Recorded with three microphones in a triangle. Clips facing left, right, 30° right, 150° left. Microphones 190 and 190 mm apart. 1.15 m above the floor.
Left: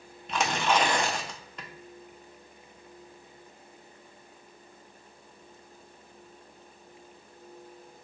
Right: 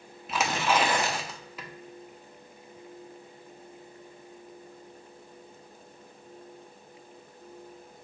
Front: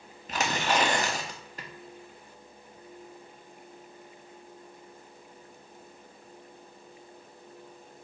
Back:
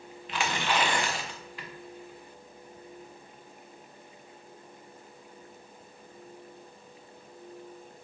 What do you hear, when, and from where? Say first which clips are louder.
0.3 s tearing paper: even, front 2 dB; 5° right, 0.6 m